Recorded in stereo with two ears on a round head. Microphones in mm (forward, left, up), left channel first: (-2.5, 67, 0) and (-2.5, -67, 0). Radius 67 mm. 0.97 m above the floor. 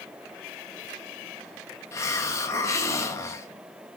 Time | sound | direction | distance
1.9 | a hiss | 20° left (ahead or behind) | 1.3 m